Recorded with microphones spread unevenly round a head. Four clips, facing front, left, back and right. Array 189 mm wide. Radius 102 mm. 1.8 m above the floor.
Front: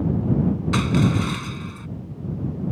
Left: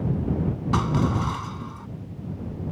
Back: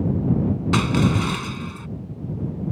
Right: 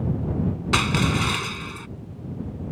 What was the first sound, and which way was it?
Crushing, 105° right.